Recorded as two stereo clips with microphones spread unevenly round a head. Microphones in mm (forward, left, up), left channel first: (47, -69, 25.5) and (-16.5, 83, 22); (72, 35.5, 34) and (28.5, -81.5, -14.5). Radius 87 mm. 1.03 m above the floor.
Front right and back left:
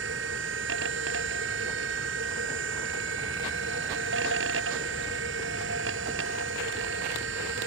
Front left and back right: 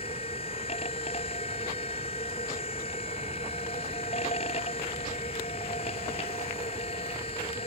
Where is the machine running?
125° left.